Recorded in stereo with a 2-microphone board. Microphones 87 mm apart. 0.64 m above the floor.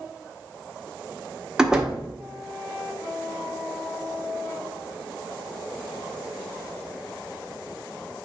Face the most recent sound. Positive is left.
turn(degrees=-10)  # may be behind; listen again after turning